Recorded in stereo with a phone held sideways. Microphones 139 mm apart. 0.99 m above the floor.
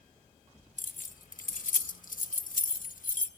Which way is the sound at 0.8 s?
75° left (ahead or behind).